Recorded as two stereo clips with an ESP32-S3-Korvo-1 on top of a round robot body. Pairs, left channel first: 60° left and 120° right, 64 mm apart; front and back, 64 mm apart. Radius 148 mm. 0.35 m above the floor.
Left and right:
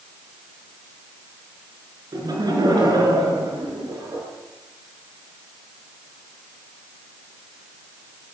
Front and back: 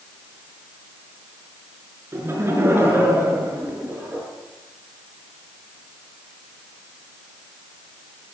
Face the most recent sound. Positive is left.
turn(degrees=-120)